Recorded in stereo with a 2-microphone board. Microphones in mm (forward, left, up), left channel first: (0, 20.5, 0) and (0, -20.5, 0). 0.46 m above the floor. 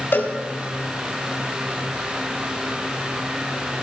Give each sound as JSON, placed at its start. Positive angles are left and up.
{"t": 0.1, "sound": "a cowbell", "side_deg": 50, "distance_m": 3.0}